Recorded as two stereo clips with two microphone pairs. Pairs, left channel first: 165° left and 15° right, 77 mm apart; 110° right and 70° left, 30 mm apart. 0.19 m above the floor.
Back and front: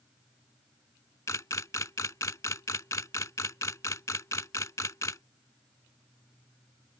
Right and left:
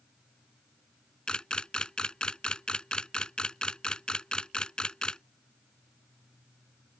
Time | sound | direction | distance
1.3 | a camera shutter | 165° right | ?